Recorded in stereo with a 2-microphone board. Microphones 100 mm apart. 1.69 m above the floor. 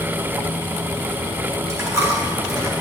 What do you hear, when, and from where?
1.7 s a dropped coin: 30° right (ahead or behind), 4 m